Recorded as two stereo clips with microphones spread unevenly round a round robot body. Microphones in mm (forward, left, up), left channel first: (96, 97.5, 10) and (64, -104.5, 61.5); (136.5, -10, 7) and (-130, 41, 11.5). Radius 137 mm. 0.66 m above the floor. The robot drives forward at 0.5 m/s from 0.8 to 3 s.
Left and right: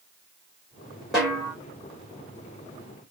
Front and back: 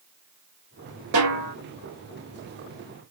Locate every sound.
1.1 s a snare drum: 165° left, 2 m